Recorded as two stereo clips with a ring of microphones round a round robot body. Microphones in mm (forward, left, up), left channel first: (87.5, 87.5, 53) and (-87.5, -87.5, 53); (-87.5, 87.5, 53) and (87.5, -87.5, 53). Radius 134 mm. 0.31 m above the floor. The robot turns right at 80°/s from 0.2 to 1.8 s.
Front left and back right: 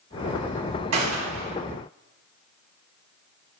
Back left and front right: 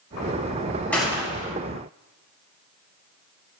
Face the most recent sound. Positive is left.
turn(degrees=-70)